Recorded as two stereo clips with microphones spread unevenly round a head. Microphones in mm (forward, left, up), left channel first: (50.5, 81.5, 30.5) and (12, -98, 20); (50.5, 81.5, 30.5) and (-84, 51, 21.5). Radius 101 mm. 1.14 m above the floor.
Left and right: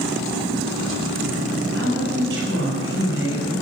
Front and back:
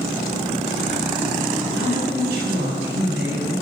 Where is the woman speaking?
140° right, 6 m.